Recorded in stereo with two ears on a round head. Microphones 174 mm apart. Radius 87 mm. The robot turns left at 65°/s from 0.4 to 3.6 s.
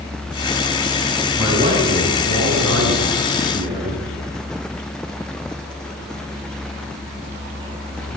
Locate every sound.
1.4 s a man speaking: 5° right, 6.5 m; by 4.0 s 150° right, 6.5 m